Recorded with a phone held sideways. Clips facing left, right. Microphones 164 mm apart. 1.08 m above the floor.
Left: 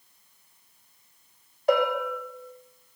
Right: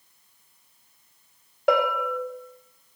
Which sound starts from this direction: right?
A bell, at 1.7 s.